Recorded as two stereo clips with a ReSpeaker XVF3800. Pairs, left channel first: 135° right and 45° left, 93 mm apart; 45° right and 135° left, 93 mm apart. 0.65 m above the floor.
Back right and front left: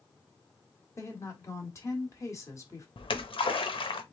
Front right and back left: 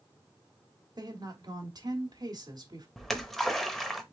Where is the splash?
135° right, 0.7 m.